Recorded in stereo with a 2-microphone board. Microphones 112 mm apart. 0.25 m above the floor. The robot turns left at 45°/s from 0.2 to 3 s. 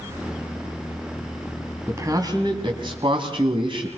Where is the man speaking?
30° right, 2.0 m; by 3.9 s 80° right, 2.0 m.